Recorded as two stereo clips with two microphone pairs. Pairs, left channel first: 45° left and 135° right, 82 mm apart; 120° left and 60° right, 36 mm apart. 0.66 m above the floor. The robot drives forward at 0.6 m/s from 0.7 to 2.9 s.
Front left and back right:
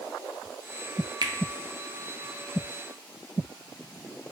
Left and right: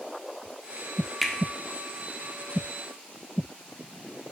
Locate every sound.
1.2 s a finger snap: 155° right, 0.8 m; by 1.3 s 160° right, 0.8 m